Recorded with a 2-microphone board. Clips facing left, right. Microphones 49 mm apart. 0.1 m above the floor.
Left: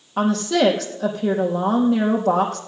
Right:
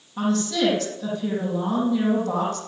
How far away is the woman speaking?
About 3.5 m.